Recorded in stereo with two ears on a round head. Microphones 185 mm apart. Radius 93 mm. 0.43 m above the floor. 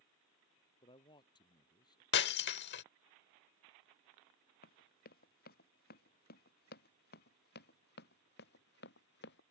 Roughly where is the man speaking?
Left.